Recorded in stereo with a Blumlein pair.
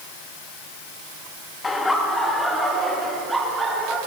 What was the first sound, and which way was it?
Laughter, 15° left.